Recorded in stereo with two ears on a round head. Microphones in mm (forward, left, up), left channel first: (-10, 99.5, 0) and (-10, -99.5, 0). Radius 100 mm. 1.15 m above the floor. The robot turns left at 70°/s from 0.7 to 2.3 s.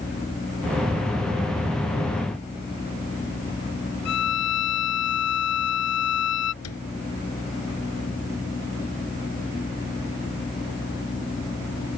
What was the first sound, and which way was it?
A violin, 70° left (ahead or behind).